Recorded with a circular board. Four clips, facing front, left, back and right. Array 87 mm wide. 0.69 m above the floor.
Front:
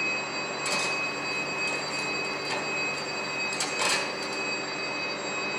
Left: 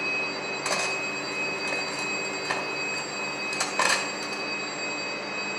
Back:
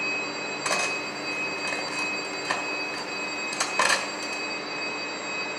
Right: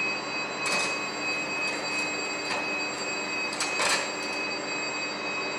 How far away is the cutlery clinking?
About 2.5 m.